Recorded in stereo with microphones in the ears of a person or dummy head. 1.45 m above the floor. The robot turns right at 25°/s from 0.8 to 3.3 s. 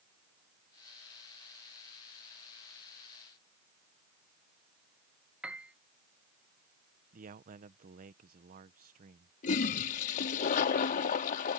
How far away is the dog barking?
No dog barking in this recording.